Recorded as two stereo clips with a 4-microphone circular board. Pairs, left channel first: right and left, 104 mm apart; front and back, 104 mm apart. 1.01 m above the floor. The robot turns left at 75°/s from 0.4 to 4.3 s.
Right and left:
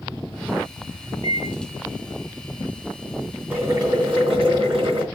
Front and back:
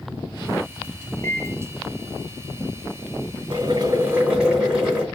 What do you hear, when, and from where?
1.2 s a microwave: 60° right, 0.7 m; by 1.5 s 80° right, 0.7 m
3.5 s boiling: 160° left, 2.5 m; by 5.0 s 100° left, 2.5 m